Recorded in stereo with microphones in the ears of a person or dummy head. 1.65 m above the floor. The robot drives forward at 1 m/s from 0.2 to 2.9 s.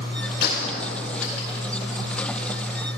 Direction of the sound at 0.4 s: 60° left (ahead or behind).